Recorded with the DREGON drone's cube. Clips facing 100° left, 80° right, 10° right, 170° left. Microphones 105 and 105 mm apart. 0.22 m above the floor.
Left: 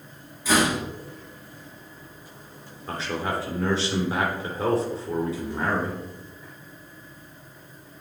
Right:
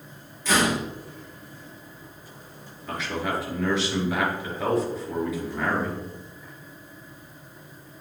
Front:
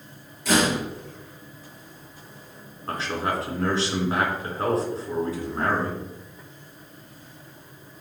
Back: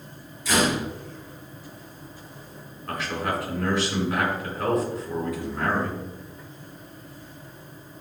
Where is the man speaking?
45° left, 2.5 m.